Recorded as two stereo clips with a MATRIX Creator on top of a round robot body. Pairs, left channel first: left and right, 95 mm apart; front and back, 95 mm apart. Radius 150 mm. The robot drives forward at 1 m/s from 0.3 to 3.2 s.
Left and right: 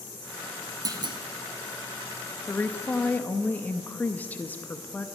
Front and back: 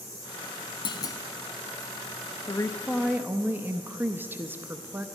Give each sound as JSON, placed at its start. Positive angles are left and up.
{"t": 0.8, "sound": "a clunk", "azimuth_deg": -40, "distance_m": 0.9}
{"t": 2.5, "sound": "a woman speaking", "azimuth_deg": 20, "distance_m": 0.9}